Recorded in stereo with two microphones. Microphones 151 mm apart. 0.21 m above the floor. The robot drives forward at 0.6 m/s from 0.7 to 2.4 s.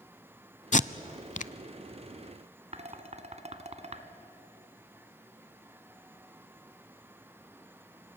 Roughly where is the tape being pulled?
Left.